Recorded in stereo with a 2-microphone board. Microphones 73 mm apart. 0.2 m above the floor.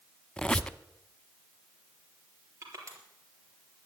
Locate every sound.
0.4 s a squeak: 15° left (ahead or behind), 0.5 m
2.6 s crushing: 40° right (ahead or behind), 4 m